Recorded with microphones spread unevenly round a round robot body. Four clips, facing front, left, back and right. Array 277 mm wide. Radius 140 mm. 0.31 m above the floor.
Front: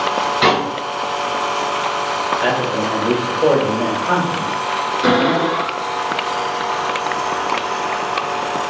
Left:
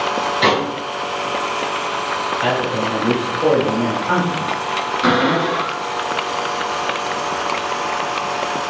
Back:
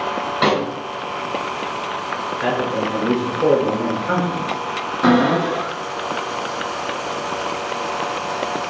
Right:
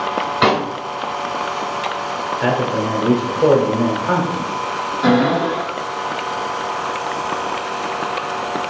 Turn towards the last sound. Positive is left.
turn(degrees=-155)